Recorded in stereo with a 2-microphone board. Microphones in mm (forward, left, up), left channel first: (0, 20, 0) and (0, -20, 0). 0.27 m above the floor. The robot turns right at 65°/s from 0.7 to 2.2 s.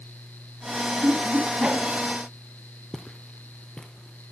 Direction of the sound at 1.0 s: 60° right (ahead or behind).